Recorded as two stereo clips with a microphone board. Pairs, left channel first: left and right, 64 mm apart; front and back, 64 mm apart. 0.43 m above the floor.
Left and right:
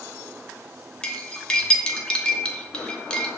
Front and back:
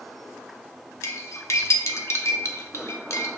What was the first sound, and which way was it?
Cutlery clinking, 20° left.